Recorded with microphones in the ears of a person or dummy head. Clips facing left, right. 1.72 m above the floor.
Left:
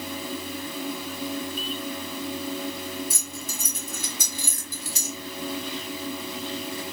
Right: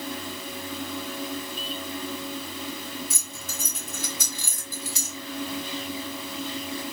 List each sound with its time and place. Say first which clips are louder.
3.1 s keys jangling: left 3 dB; 60° left (ahead or behind), 2 m; by 5.2 s 35° left (ahead or behind), 2 m